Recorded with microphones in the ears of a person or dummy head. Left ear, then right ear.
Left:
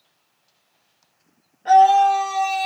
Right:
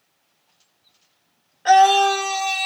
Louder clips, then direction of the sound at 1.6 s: Left 1 dB; 55° right (ahead or behind).